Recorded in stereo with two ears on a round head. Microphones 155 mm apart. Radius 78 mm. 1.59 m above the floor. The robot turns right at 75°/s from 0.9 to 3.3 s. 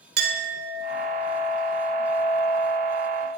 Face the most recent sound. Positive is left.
turn(degrees=115)